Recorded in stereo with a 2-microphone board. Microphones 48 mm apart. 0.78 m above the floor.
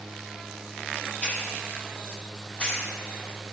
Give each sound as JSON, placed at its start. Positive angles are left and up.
{"t": 1.2, "sound": "a hiss", "side_deg": 20, "distance_m": 1.1}